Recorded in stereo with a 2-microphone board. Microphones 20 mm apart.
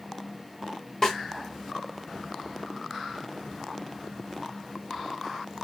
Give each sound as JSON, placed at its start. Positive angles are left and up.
{"t": 1.0, "sound": "a snare drum", "side_deg": 30, "distance_m": 1.4}